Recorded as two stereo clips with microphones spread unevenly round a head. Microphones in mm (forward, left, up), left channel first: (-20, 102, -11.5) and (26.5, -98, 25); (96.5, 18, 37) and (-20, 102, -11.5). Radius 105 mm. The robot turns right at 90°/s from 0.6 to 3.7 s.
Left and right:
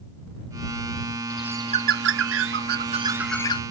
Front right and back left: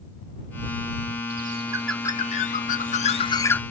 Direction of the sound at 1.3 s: 170° right.